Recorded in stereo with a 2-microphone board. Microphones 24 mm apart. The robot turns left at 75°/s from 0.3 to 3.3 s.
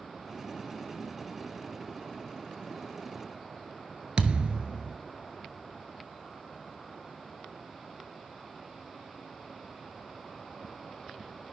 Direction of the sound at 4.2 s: 45° right (ahead or behind).